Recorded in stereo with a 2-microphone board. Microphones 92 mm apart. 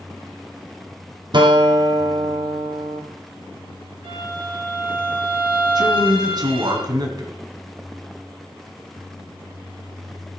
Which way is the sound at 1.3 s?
55° right (ahead or behind).